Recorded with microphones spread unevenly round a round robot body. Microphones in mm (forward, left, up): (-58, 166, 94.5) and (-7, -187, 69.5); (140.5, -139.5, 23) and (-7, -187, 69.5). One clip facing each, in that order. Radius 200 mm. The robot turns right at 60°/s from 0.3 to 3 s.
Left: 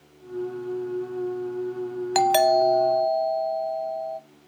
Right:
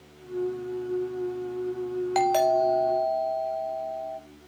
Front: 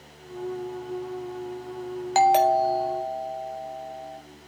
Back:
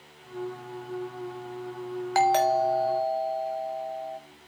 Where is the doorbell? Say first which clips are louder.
Left 4 dB, front 3 dB; 50° left, 1.2 m; by 4.2 s 100° left, 1.2 m.